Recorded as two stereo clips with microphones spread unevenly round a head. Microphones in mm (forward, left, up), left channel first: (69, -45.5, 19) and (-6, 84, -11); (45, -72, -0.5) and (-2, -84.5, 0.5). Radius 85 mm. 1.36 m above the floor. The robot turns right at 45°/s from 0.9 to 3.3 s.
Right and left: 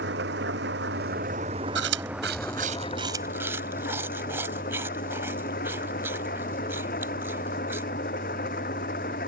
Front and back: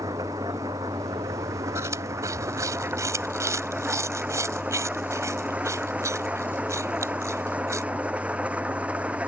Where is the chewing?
130° left; by 7.8 s 160° right.